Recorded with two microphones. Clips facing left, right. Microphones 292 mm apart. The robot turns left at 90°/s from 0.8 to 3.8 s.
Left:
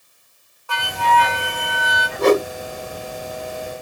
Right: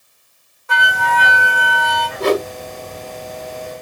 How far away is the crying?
I don't hear crying.